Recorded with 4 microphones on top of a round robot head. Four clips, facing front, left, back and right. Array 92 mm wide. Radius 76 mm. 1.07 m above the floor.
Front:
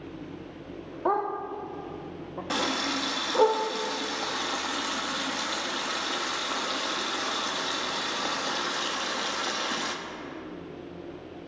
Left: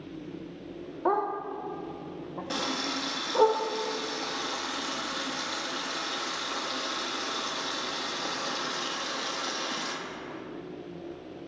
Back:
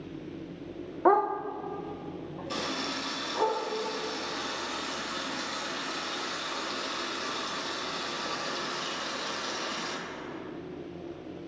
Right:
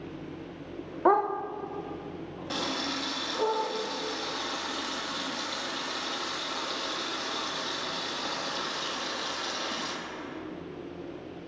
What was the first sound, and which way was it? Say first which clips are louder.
A dog barking: right 4 dB, back 4 dB; 130° right.